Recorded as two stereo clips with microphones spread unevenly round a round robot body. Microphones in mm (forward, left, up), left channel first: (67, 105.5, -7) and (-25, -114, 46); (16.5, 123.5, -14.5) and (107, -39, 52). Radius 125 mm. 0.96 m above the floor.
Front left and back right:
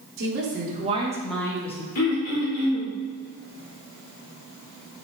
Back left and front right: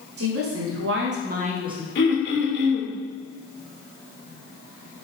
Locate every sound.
0.2 s a woman speaking: 70° right, 1.8 m; by 1.9 s 20° left, 1.4 m
1.9 s throat clearing: 95° left, 2 m